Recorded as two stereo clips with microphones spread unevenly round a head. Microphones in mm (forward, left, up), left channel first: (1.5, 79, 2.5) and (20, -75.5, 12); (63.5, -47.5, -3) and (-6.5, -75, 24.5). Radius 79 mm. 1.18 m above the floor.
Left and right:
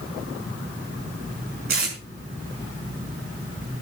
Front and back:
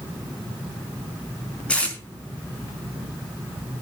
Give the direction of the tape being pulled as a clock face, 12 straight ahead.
2 o'clock.